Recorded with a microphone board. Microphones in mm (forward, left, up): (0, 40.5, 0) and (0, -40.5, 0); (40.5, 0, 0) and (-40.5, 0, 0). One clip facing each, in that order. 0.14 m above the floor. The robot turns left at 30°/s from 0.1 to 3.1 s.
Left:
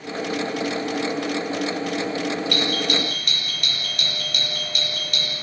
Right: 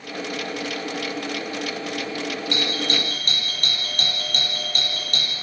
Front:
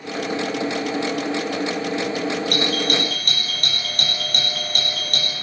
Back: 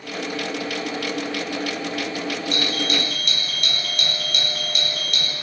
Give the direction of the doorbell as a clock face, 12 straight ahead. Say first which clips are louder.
Left 2 dB, front 3 dB; 1 o'clock.